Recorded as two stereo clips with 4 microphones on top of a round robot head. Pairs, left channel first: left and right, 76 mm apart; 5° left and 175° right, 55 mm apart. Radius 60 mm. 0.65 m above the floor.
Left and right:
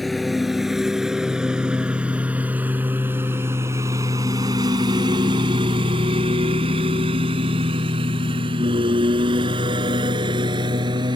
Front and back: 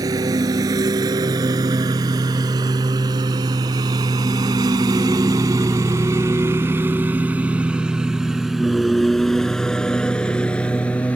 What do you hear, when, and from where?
0.0 s a lawn mower: straight behind; by 11.2 s 65° right